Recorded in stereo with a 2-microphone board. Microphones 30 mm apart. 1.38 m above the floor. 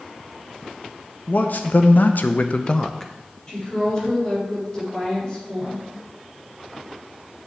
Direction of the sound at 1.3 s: 60° left (ahead or behind).